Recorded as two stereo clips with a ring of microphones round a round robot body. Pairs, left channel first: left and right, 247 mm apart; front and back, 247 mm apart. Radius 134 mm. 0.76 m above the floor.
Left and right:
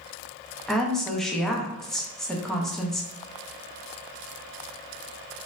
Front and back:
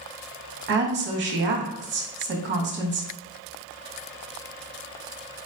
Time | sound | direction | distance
0.7 | a woman speaking | straight behind | 0.6 m